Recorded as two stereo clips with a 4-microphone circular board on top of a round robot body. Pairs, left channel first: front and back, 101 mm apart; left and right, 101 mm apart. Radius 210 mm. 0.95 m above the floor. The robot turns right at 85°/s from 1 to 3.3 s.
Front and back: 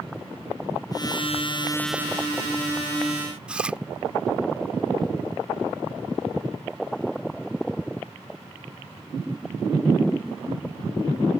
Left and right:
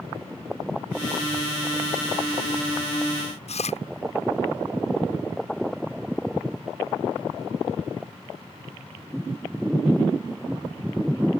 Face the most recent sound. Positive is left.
turn(degrees=100)